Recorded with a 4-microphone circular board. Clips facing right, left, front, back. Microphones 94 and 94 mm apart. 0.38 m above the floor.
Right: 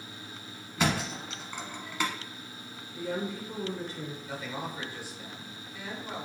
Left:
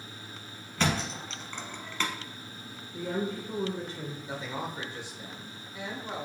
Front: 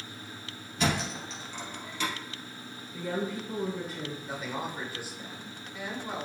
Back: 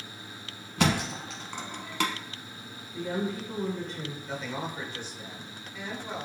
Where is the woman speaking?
75° left, 1.2 m.